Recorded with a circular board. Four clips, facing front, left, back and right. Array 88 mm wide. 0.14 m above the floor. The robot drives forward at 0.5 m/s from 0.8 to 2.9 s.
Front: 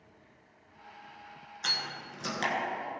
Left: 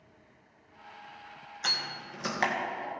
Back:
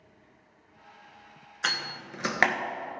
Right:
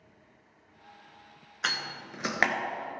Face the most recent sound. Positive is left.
turn(degrees=-155)